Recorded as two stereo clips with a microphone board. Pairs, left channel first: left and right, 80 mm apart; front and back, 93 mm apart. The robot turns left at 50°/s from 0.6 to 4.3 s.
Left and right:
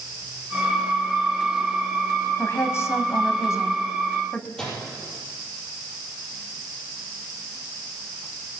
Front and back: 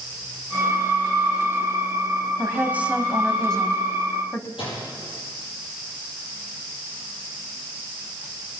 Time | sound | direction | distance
2.4 | a woman speaking | 135° left | 1.4 m
4.6 | a microwave | 10° left | 6.5 m